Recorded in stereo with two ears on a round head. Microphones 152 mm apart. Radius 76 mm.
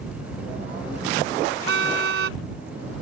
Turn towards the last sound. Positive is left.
turn(degrees=-75)  # may be behind; listen again after turning